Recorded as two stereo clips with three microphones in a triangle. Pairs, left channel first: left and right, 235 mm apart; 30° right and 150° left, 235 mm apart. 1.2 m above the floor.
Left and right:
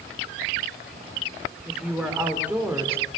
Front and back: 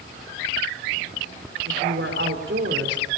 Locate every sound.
1.6 s a woman speaking: 175° right, 5 m; by 3.0 s 170° right, 4 m